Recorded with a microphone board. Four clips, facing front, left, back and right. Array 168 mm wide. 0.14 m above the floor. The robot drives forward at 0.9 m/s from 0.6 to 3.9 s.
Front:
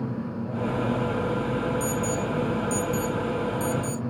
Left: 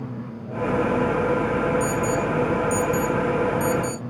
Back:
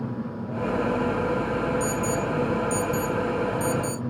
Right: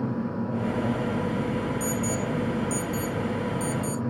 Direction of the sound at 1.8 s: 75° right.